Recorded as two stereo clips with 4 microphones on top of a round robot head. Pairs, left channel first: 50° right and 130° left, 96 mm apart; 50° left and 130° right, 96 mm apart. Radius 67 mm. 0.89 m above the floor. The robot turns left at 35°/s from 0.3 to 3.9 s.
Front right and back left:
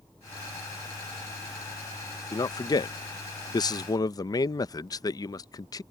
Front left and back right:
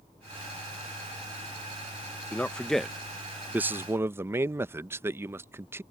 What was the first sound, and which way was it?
A man speaking, 20° right.